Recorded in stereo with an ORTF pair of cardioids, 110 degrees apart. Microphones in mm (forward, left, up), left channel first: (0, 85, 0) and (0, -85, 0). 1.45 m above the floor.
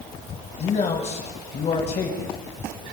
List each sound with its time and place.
0.6 s a man speaking: 45° left, 2.0 m